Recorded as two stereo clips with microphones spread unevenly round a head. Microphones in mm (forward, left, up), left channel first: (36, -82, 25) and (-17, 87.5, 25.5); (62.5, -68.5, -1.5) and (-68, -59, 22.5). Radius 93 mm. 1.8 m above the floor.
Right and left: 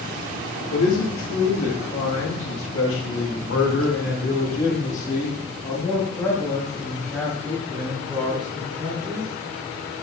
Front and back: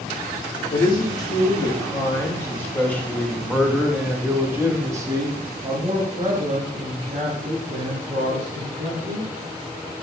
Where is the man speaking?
60° right, 3 m; by 9.3 s 170° right, 3.5 m.